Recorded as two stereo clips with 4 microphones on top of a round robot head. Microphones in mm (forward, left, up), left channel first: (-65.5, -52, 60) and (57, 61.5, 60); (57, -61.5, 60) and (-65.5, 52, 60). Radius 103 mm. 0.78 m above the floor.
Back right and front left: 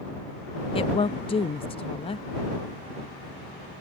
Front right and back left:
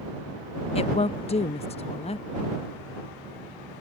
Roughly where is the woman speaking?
Right.